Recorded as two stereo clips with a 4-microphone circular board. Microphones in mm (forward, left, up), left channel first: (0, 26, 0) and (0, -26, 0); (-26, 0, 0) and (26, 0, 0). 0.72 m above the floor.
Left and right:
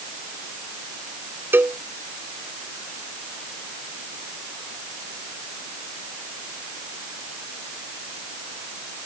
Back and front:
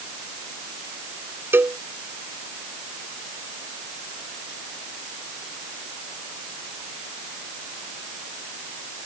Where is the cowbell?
45° right.